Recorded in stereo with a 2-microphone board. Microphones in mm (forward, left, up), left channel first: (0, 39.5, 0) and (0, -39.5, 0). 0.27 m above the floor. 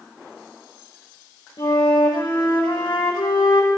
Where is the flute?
80° left, 5.5 m.